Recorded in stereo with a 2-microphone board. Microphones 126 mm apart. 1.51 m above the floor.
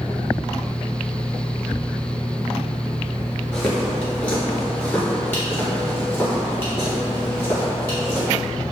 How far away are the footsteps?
About 1.5 m.